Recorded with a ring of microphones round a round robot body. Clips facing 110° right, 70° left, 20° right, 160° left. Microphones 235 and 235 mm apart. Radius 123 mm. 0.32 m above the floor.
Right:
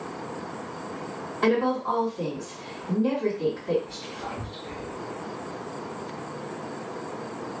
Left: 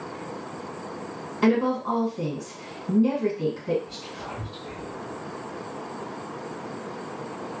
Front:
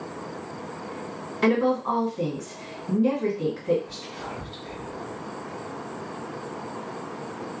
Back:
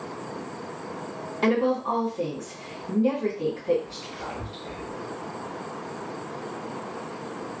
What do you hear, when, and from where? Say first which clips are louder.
1.4 s a woman speaking: left 2 dB, front 1 dB; 35° left, 2 m
3.9 s whispering: right 1 dB, even; 35° right, 1.5 m